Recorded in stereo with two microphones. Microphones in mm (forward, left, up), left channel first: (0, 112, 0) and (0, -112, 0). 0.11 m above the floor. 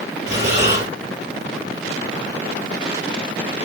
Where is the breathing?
35° right (ahead or behind), 2 m.